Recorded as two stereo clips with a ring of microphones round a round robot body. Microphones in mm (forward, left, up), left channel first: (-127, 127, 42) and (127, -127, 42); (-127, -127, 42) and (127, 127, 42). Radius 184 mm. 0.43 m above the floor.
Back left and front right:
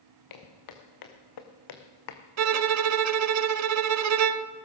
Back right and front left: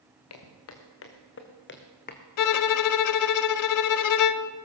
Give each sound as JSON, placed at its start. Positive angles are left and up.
{"t": 0.3, "sound": "footsteps", "azimuth_deg": 175, "distance_m": 2.5}
{"t": 2.4, "sound": "a violin", "azimuth_deg": -95, "distance_m": 0.6}